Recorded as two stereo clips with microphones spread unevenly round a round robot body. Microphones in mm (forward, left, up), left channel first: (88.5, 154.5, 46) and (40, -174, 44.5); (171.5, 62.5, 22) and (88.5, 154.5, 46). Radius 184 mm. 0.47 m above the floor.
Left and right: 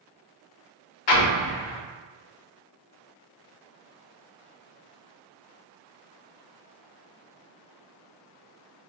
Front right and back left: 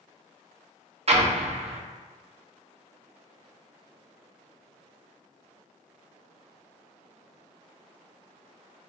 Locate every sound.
1.1 s an explosion: 85° left, 0.7 m